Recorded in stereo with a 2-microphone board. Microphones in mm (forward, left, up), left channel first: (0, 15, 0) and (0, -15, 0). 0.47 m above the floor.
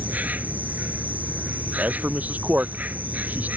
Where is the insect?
75° right (ahead or behind).